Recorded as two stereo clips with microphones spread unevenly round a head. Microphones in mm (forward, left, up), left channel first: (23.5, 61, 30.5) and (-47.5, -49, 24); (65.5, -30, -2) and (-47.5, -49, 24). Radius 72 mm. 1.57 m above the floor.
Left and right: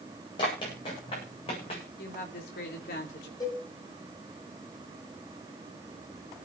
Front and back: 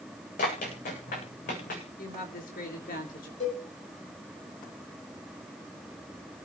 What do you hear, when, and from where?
0.4 s running footsteps: straight ahead, 8 m; by 1.8 s 10° left, 7.5 m
2.0 s a woman speaking: 35° left, 3.5 m
3.4 s a cowbell: 5° right, 7.5 m